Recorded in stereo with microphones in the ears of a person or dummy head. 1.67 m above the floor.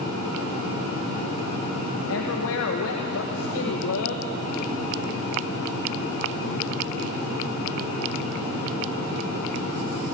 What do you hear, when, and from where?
2.1 s a woman speaking: 75° left (ahead or behind), 1.7 m